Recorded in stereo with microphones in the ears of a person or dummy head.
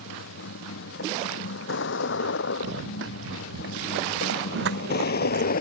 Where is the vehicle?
65° left (ahead or behind); by 5.6 s 45° left (ahead or behind).